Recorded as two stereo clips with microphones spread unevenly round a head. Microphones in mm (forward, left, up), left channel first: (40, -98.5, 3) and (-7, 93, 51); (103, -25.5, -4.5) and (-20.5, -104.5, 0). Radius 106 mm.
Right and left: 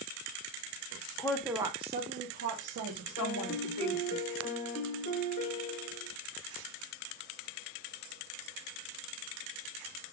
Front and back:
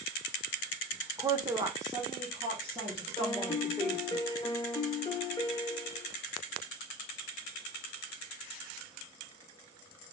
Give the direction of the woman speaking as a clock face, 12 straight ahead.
3 o'clock.